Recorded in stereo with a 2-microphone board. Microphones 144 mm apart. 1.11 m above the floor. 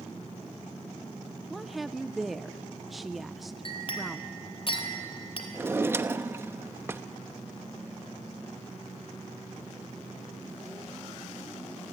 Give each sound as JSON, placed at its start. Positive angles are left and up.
{"t": 1.5, "sound": "a woman speaking", "side_deg": 0, "distance_m": 0.6}
{"t": 3.6, "sound": "a clink", "side_deg": 40, "distance_m": 3.0}
{"t": 5.5, "sound": "a drawer", "side_deg": -15, "distance_m": 0.8}